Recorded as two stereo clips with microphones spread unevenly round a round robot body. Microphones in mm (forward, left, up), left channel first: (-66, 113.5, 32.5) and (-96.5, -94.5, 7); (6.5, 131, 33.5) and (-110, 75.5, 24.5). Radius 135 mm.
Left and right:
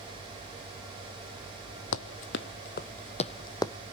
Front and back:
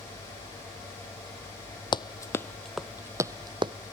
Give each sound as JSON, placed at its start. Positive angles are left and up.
{"t": 1.9, "sound": "running footsteps", "azimuth_deg": 75, "distance_m": 0.8}